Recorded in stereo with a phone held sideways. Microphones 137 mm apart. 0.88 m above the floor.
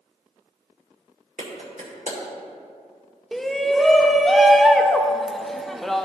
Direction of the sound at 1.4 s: 80° right.